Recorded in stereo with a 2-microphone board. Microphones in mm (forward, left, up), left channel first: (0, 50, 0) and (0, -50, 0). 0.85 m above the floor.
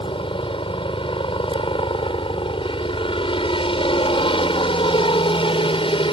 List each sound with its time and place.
0.0 s a helicopter: 60° left (ahead or behind)